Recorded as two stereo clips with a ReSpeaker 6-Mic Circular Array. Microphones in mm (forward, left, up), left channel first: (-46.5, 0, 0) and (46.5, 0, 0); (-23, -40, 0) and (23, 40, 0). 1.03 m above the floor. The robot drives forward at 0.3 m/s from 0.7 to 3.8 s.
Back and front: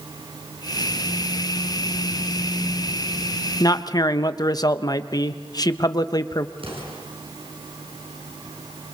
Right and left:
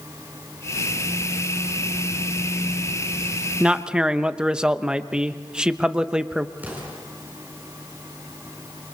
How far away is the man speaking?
About 0.9 m.